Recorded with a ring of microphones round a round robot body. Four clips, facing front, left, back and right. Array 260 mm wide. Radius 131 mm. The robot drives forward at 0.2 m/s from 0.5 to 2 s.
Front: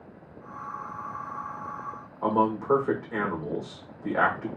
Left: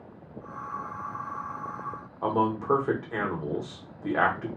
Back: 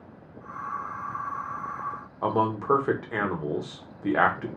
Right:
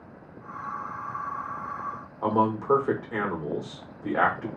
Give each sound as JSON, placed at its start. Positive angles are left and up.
{"t": 2.2, "sound": "a man speaking", "azimuth_deg": 175, "distance_m": 1.0}